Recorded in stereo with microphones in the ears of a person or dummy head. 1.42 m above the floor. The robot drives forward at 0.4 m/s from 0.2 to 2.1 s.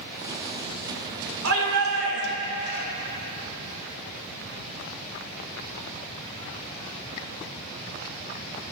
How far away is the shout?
About 1.7 m.